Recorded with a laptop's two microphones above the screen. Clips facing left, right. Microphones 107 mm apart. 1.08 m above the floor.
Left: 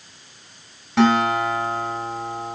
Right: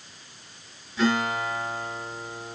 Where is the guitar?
90° left, 9.5 m.